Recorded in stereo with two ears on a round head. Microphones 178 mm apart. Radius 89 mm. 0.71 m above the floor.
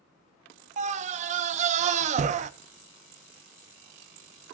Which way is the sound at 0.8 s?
35° right (ahead or behind).